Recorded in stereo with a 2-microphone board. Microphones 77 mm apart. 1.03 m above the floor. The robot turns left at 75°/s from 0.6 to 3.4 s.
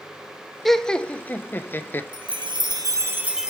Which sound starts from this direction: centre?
Laughter, at 0.7 s.